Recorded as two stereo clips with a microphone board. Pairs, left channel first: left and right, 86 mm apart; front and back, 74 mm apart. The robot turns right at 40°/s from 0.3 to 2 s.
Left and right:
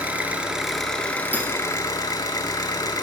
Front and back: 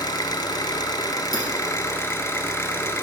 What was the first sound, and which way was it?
An engine running, 15° right.